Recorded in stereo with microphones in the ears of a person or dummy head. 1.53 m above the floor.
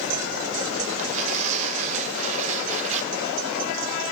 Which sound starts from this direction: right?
Tearing paper, at 1.0 s.